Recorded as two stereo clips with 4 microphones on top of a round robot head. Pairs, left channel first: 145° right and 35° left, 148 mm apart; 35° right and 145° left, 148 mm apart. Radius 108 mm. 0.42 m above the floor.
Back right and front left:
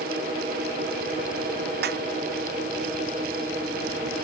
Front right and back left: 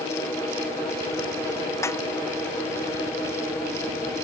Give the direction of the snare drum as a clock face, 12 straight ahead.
11 o'clock.